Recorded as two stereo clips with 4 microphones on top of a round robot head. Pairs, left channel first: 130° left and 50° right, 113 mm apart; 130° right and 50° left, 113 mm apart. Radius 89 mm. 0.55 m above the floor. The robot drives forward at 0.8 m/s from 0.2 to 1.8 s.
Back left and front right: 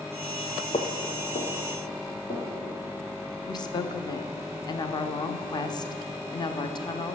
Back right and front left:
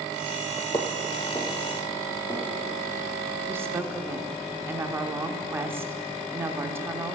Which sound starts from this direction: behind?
Footsteps, at 0.7 s.